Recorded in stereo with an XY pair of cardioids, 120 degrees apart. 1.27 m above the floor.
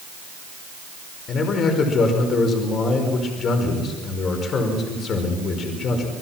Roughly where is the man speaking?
Ahead left.